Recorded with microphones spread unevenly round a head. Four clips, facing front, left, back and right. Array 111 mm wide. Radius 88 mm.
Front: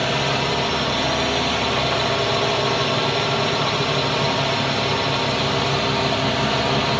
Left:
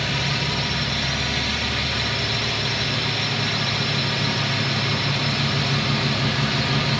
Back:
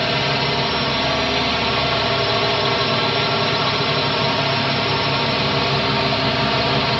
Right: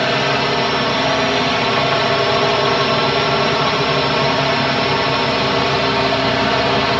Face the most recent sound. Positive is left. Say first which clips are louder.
# right 10 dB, back 1 dB
turn(degrees=-100)